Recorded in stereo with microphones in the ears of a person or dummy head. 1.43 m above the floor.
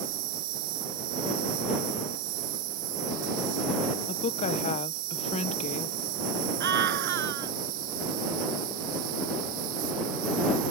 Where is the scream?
60° right (ahead or behind).